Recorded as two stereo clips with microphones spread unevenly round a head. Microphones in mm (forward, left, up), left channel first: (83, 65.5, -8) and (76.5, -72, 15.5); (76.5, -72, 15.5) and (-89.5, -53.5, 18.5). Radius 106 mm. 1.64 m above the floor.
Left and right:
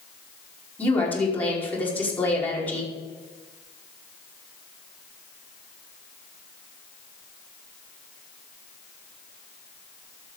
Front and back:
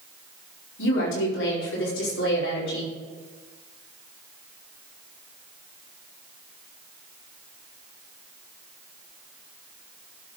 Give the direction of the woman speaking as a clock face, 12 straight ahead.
12 o'clock.